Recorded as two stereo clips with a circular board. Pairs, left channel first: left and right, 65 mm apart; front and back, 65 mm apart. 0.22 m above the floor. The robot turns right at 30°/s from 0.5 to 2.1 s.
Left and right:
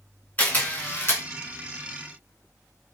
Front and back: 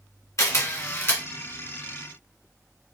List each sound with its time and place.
0.4 s a camera shutter: 25° left, 1.3 m; by 1.2 s 50° left, 1.3 m